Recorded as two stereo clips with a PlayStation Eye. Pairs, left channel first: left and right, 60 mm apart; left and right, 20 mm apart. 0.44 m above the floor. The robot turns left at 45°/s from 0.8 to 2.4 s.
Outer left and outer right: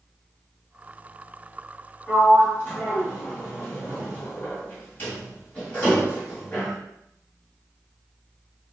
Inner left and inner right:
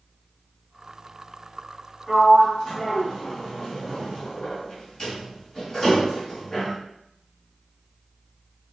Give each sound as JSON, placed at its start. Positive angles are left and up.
{"t": 2.1, "sound": "a sliding door", "side_deg": 40, "distance_m": 2.0}